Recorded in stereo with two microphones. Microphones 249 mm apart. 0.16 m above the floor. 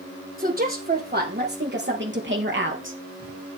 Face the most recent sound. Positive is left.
turn(degrees=-55)  # may be behind; listen again after turning